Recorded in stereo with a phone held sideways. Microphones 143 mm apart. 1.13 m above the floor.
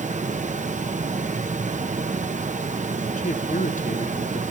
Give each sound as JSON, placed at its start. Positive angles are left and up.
{"t": 0.0, "sound": "running water", "side_deg": -55, "distance_m": 1.0}
{"t": 3.2, "sound": "a man speaking", "side_deg": 60, "distance_m": 0.9}